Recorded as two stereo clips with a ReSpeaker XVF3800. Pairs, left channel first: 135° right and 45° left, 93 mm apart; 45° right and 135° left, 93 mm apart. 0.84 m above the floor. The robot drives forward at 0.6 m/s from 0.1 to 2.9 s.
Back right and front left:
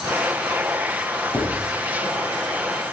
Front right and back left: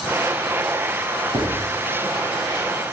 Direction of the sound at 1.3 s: 165° left.